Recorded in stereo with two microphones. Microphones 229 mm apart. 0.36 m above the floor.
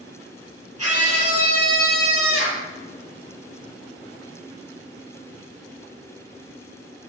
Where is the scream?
80° right, 7.5 m; by 2.7 s 65° right (ahead or behind), 6.5 m.